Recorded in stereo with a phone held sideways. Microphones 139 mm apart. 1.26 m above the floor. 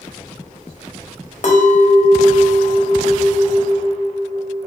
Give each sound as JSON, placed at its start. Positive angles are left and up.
{"t": 1.4, "sound": "a clink", "side_deg": 60, "distance_m": 0.8}